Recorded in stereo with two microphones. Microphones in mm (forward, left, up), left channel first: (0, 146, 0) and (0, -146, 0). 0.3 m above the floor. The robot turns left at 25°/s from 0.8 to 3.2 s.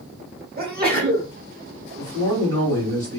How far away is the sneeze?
About 1.0 m.